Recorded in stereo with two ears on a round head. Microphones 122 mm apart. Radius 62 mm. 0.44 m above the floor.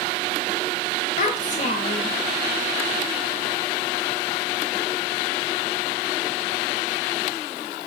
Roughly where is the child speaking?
Left.